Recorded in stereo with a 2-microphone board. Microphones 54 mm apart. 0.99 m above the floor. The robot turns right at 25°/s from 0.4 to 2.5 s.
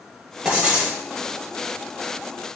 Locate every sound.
0.5 s writing: 15° right (ahead or behind), 0.9 m; by 1.0 s 5° right (ahead or behind), 0.9 m